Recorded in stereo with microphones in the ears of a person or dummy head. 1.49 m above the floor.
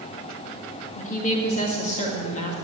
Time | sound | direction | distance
0.9 | a woman speaking | 40° left (ahead or behind) | 1.9 m